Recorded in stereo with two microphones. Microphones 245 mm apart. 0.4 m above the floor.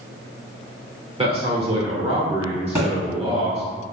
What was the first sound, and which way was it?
A man speaking, 25° right (ahead or behind).